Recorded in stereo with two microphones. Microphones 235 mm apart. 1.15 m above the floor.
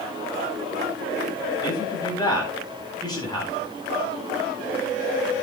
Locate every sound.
1.6 s a man speaking: 15° left (ahead or behind), 9.5 m